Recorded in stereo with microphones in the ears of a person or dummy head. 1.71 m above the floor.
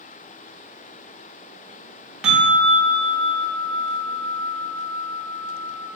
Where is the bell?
5° right (ahead or behind), 0.5 m.